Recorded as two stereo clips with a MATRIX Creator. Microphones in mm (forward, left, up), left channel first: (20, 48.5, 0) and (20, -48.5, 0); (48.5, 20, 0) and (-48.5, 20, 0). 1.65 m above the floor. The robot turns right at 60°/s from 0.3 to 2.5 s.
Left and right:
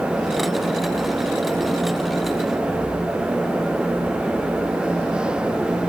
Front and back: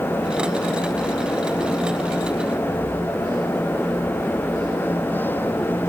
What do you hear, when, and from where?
Only background noise.